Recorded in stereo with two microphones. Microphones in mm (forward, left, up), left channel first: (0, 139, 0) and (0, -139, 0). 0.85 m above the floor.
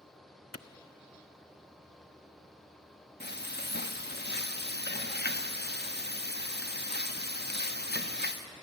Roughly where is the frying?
Left.